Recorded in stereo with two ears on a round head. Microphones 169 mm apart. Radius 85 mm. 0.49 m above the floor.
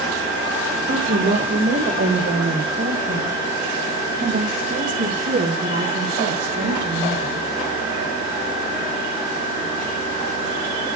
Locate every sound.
0.9 s a woman speaking: 40° right (ahead or behind), 1.6 m; by 7.4 s 45° right (ahead or behind), 5 m